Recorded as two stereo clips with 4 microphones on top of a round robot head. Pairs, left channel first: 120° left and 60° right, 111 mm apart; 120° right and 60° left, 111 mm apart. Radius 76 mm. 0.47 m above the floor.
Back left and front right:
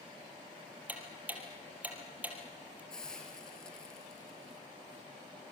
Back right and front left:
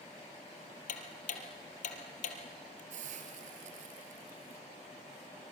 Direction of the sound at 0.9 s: 135° right.